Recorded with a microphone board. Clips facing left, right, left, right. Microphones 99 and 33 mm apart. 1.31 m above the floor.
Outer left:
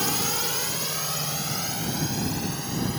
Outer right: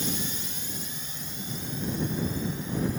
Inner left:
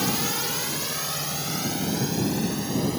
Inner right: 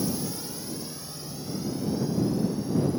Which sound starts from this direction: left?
A drone, at 0.0 s.